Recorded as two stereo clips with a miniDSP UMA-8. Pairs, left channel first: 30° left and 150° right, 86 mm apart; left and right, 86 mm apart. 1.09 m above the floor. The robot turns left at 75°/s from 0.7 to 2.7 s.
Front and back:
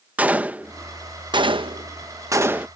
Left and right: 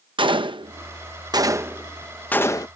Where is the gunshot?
80° right; by 2.7 s 135° left.